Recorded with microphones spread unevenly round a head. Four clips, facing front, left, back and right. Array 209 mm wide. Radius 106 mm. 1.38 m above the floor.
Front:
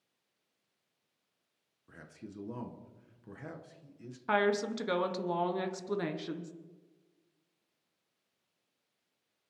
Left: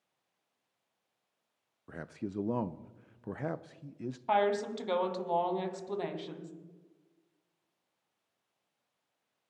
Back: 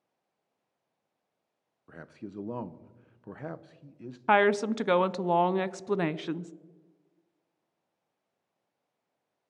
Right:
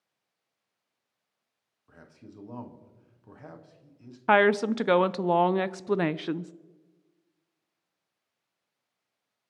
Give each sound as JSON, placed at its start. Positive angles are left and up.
{"t": 1.9, "sound": "a man speaking", "azimuth_deg": 95, "distance_m": 0.7}
{"t": 4.3, "sound": "a woman speaking", "azimuth_deg": -105, "distance_m": 0.6}